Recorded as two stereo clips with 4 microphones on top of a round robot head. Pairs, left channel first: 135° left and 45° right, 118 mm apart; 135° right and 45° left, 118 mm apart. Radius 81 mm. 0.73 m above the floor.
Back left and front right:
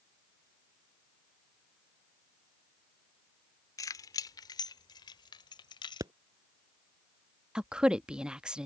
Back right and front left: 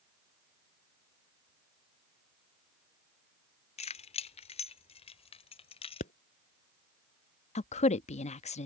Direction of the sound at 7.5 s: 130° right.